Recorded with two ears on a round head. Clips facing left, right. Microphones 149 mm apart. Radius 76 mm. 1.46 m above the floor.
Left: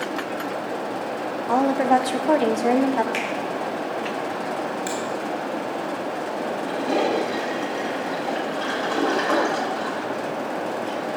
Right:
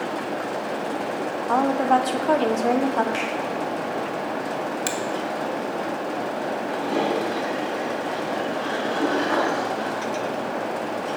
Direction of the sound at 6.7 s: 80° left.